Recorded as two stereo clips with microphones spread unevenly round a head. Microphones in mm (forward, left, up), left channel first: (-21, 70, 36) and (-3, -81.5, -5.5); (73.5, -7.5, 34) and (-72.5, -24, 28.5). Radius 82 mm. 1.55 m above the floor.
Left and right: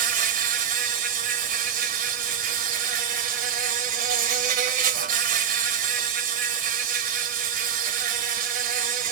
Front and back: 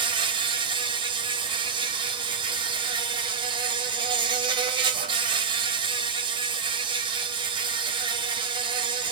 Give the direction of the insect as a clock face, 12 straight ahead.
4 o'clock.